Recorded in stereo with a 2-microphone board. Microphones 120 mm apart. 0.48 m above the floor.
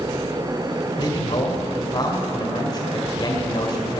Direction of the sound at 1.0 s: 40° left (ahead or behind).